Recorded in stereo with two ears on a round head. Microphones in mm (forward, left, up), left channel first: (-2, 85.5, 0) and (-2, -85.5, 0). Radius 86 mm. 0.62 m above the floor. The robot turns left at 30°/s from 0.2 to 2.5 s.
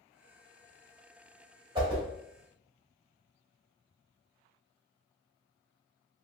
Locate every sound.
1.8 s a whoosh: 25° right (ahead or behind), 1.0 m; by 2.0 s 20° right (ahead or behind), 1.0 m